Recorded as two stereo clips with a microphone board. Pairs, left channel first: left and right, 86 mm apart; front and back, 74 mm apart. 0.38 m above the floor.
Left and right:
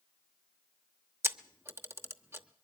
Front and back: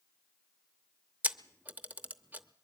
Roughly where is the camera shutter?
Behind right.